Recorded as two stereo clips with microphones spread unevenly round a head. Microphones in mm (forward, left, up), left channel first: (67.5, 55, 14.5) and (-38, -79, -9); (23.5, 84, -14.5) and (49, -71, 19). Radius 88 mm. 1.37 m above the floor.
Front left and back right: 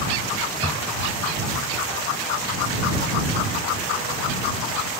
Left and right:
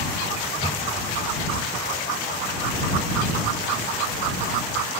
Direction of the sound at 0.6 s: 165° left.